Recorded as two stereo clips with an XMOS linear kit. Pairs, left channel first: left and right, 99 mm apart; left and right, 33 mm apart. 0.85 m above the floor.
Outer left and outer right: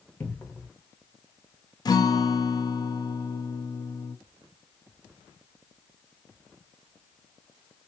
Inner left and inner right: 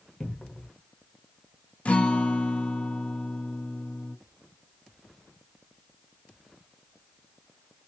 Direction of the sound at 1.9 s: 40° left (ahead or behind).